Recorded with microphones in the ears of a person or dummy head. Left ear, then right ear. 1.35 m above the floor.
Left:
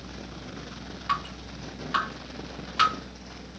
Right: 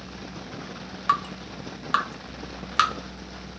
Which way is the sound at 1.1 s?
50° right (ahead or behind).